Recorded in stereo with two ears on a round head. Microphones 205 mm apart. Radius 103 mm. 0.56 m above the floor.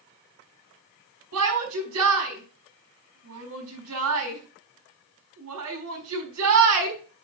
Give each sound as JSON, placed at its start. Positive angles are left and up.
{"t": 1.3, "sound": "a shout", "side_deg": -70, "distance_m": 5.0}